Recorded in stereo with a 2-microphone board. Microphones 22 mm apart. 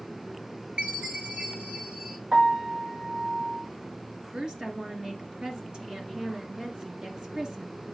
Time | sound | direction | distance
0.8 | a chime | 50° right (ahead or behind) | 1.3 m
2.3 | a piano | 85° right | 4.5 m
4.3 | a woman speaking | 40° right (ahead or behind) | 2.5 m